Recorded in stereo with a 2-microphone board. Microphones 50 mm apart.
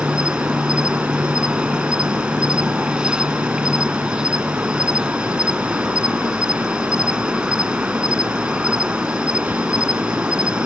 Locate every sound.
0.0 s an insect: 15° right (ahead or behind)